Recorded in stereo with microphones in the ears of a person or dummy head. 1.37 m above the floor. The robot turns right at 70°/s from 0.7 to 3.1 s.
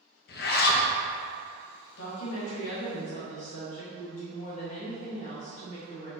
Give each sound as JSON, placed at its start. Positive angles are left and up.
{"t": 0.3, "sound": "a zipper", "side_deg": 50, "distance_m": 0.5}
{"t": 2.0, "sound": "a woman speaking", "azimuth_deg": 60, "distance_m": 1.1}